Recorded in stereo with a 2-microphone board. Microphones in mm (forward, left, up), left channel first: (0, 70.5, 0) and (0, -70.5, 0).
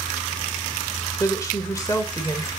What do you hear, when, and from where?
1.2 s a woman speaking: 25° left (ahead or behind), 1.5 m